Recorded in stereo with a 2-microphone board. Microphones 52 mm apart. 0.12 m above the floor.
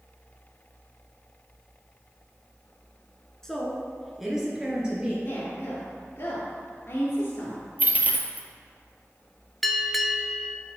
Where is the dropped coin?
35° right (ahead or behind), 0.9 m.